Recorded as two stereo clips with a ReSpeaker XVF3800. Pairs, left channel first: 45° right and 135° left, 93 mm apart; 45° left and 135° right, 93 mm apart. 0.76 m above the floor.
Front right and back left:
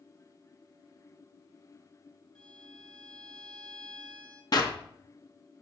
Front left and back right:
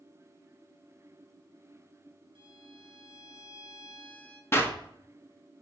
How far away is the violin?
About 1.0 m.